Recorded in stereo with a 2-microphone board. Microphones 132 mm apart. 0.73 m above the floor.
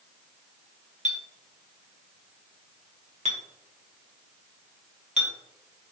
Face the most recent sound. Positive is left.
turn(degrees=-60)  # may be behind; listen again after turning